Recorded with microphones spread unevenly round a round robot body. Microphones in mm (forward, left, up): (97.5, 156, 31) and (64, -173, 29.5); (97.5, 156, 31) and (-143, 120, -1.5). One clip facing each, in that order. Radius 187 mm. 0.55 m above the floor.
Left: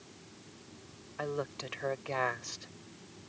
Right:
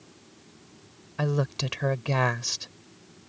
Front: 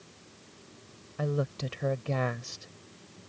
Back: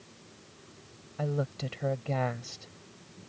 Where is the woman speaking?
75° right.